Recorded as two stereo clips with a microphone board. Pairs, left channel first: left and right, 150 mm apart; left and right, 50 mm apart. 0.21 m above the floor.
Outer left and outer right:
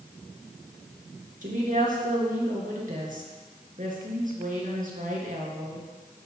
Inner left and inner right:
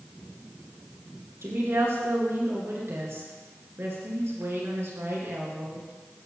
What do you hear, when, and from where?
1.4 s a woman speaking: 60° right (ahead or behind), 3 m